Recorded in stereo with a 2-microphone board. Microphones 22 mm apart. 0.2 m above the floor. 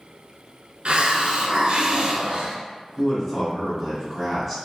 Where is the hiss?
65° right (ahead or behind), 0.6 m.